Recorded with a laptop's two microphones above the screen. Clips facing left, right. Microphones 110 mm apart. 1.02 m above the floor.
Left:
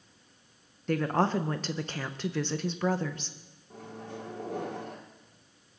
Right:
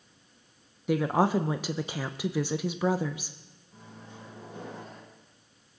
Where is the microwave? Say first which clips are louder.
Left 7 dB; 80° left, 2.5 m.